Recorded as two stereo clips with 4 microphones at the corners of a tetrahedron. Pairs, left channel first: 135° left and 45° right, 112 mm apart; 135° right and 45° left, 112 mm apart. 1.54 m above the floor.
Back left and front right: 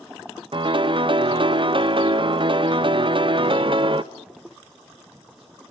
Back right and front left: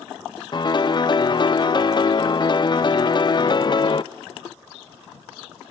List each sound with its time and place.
0.5 s a piano: 85° right, 0.6 m